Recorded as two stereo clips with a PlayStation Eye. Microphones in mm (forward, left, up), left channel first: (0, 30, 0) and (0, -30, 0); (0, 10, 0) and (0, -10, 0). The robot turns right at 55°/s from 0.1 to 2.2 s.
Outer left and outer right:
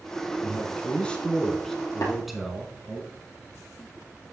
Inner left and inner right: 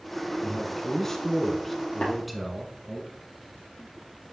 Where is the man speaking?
20° left (ahead or behind), 1.4 m; by 3.0 s centre (ahead or behind), 1.4 m.